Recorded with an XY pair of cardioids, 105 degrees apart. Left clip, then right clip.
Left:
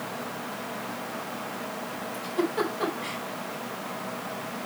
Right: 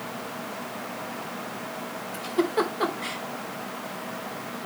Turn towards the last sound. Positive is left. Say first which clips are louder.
# right 3 dB
turn(degrees=-35)